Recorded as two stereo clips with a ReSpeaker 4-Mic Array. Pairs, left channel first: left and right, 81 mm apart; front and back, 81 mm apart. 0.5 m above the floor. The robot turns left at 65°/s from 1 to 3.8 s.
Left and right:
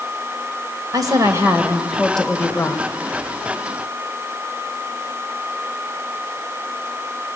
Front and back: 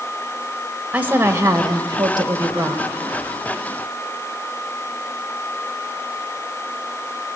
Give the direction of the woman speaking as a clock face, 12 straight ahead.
4 o'clock.